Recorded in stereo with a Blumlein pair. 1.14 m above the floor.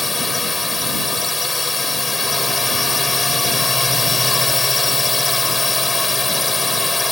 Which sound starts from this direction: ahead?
A drone, at 0.0 s.